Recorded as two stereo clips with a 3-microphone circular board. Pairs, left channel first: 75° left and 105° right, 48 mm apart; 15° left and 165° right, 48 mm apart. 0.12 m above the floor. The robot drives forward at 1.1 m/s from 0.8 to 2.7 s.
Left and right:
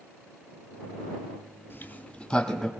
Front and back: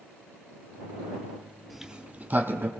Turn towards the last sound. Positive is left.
turn(degrees=155)